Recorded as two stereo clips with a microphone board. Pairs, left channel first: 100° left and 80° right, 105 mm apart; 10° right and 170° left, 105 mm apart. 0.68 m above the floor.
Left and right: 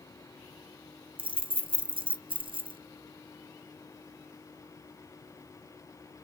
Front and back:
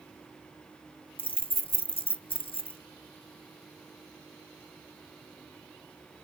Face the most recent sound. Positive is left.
turn(degrees=-45)